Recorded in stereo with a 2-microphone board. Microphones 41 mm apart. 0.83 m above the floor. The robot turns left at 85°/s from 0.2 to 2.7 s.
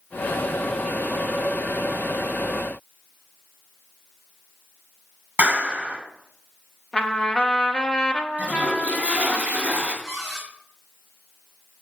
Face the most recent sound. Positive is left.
turn(degrees=-5)  # may be behind; listen again after turning